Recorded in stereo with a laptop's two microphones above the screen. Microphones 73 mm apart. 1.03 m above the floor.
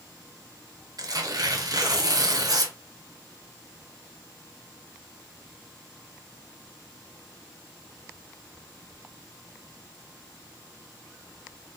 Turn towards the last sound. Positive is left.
turn(degrees=-55)  # may be behind; listen again after turning